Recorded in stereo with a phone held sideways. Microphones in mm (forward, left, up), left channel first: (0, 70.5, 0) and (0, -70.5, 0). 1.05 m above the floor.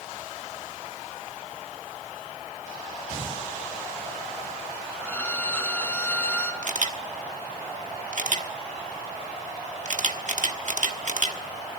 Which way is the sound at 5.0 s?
15° left (ahead or behind).